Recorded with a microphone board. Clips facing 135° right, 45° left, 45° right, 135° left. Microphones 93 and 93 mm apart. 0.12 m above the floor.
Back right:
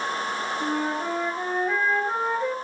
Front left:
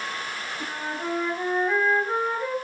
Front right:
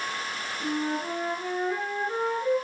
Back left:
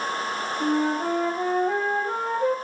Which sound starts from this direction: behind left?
A flute, at 0.6 s.